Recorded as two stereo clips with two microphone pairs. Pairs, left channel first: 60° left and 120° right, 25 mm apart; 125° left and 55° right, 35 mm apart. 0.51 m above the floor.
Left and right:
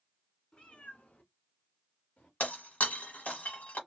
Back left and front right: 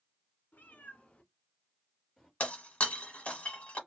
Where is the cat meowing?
105° left, 0.8 m; by 2.3 s 40° left, 1.6 m.